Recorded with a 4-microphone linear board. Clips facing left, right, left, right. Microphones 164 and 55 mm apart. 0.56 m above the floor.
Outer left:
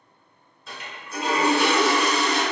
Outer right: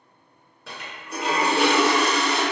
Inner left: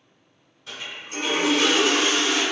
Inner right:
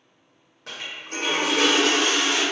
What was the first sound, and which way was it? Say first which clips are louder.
A toilet flushing: outer right 2 dB, inner right 1 dB; 70° right (ahead or behind).